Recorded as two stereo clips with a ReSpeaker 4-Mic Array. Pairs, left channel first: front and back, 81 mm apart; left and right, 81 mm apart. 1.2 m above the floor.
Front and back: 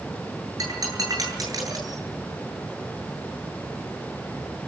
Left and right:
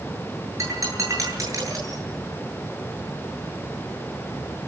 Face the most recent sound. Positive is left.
turn(degrees=-140)